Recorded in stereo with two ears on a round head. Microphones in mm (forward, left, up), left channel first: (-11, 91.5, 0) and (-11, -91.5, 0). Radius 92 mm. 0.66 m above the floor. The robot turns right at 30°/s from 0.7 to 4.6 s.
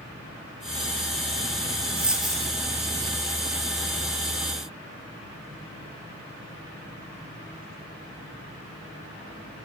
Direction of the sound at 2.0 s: 10° right (ahead or behind).